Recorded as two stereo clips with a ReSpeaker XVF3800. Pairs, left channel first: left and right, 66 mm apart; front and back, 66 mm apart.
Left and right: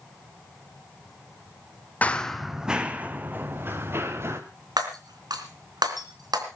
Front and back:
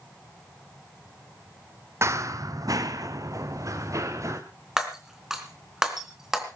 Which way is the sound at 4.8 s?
95° right.